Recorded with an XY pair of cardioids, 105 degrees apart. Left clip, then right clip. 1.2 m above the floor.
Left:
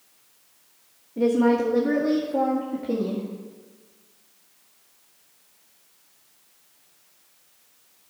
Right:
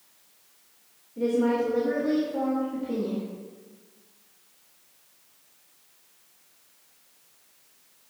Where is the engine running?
No engine running in this recording.